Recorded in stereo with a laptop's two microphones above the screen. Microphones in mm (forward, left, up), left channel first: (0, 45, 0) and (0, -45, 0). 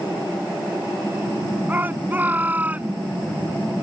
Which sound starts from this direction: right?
A shout, at 1.7 s.